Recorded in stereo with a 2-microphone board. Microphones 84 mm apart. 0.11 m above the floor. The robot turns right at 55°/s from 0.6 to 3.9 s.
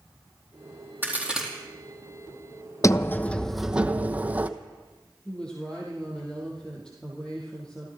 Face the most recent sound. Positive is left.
turn(degrees=10)  # may be behind; listen again after turning